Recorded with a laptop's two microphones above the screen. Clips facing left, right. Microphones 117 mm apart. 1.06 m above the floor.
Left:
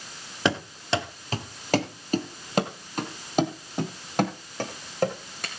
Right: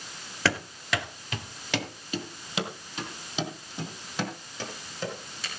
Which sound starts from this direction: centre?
Running footsteps, at 0.5 s.